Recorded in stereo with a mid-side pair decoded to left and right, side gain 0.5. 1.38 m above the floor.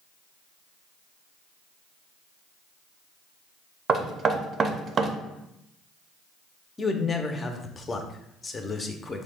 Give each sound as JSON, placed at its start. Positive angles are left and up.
{"t": 3.9, "sound": "knocking", "azimuth_deg": -45, "distance_m": 0.5}
{"t": 6.8, "sound": "a man speaking", "azimuth_deg": 30, "distance_m": 0.6}